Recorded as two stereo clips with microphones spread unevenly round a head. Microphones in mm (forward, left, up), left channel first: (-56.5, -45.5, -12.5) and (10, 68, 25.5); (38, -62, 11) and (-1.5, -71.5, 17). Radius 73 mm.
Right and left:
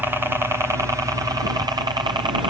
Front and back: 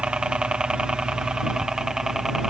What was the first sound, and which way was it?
A helicopter, 155° left.